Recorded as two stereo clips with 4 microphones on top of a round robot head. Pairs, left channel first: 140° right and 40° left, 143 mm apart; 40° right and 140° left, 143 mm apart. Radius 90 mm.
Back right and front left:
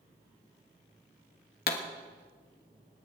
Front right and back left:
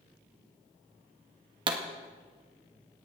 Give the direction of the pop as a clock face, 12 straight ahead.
5 o'clock.